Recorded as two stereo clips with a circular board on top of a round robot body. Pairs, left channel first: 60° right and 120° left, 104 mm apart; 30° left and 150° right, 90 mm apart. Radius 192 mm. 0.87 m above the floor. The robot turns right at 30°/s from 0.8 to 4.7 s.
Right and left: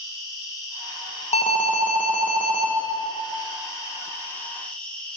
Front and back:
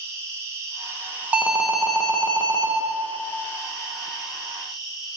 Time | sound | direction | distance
0.0 | an insect | 105° right | 1.8 m
1.3 | an alarm | 75° right | 0.9 m